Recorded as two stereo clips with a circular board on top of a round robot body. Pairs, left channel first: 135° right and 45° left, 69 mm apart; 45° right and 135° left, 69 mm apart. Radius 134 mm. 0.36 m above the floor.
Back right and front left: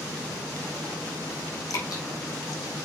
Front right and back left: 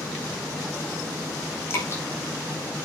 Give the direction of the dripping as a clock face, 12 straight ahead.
3 o'clock.